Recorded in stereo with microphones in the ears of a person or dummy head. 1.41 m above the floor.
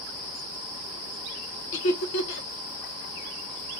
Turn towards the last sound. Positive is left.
turn(degrees=65)  # may be behind; listen again after turning